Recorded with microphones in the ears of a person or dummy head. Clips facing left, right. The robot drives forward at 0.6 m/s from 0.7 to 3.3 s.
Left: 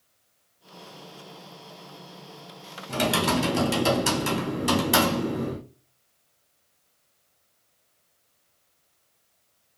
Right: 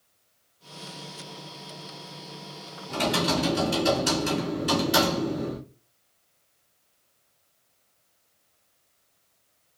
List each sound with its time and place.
2.9 s typing on a keyboard: 75° left (ahead or behind), 2.5 m; by 5.6 s 70° left (ahead or behind), 2.5 m